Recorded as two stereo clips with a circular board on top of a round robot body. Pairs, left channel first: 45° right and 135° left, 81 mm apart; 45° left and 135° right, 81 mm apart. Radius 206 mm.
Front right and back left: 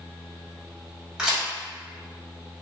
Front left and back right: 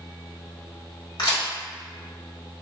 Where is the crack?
55° left, 1.9 m.